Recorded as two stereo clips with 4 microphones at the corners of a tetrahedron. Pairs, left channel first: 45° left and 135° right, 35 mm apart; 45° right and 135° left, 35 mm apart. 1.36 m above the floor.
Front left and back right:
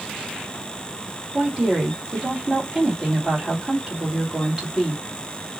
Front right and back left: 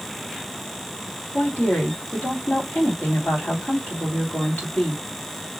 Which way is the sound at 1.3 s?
50° right.